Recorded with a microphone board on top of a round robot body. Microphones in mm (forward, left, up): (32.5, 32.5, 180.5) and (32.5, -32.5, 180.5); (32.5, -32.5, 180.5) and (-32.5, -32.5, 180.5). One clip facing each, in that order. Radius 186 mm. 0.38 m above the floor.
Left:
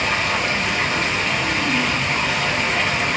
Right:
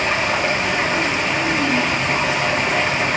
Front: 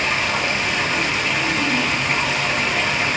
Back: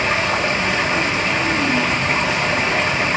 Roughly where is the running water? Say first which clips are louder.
Right 2 dB, back 2 dB; behind right.